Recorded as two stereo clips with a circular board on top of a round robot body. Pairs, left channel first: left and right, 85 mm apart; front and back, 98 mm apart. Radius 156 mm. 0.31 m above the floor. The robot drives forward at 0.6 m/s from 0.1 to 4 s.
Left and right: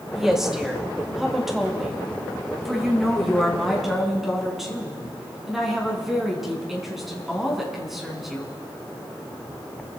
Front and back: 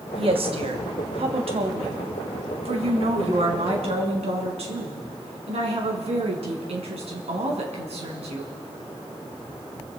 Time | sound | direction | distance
0.1 | a woman speaking | 175° right | 3 m